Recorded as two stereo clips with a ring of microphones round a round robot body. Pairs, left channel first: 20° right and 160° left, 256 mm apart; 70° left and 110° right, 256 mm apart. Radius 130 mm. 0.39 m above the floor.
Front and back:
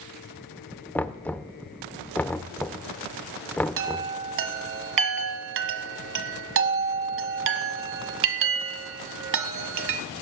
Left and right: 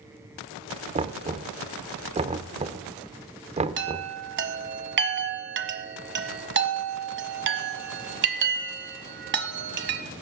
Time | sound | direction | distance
0.9 | knocking | 100° right | 0.5 m
3.8 | a chime | 160° right | 1.1 m